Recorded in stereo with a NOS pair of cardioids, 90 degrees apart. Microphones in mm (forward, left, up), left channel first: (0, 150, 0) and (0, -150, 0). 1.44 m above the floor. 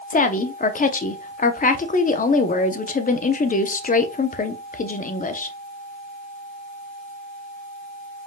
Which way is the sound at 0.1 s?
25° left.